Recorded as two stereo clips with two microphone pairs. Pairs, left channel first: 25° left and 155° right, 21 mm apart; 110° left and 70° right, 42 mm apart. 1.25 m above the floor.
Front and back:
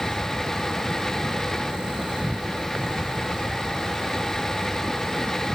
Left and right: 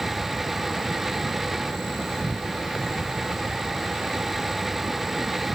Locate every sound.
0.0 s an insect: 165° right